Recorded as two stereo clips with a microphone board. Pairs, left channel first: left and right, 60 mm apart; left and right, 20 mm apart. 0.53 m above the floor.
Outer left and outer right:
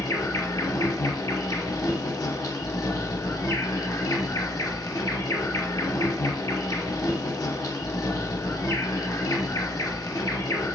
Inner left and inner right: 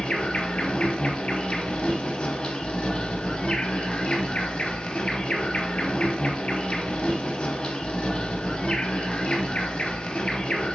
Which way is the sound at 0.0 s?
75° left (ahead or behind).